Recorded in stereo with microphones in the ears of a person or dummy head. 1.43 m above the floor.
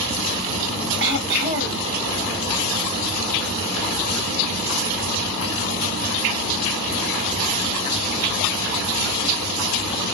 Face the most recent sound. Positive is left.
turn(degrees=-60)  # may be behind; listen again after turning